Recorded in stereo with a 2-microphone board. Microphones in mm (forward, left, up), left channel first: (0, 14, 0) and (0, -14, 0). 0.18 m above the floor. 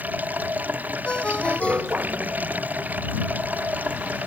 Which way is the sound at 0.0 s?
70° right (ahead or behind).